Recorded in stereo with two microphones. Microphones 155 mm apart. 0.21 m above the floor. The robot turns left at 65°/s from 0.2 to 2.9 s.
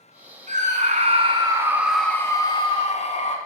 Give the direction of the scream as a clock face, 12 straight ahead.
3 o'clock.